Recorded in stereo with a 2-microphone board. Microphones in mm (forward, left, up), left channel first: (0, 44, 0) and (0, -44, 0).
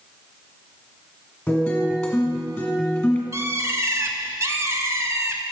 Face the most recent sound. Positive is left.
turn(degrees=-35)  # may be behind; listen again after turning